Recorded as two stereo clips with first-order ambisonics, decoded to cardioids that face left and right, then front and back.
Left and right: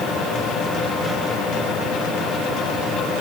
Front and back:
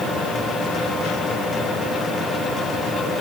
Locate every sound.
Only background noise.